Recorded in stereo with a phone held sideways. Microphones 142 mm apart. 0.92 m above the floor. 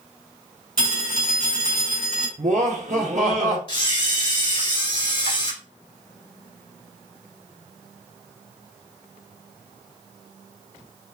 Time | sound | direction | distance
0.8 | a phone ringing | 80° left | 3 m
2.4 | laughter | 55° right (ahead or behind) | 1.5 m
3.7 | a camera shutter | 35° left (ahead or behind) | 2.5 m